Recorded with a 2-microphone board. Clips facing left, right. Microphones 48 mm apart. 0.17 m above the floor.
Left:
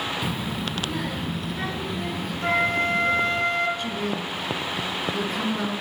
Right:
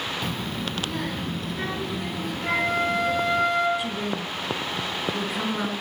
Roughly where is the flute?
Left.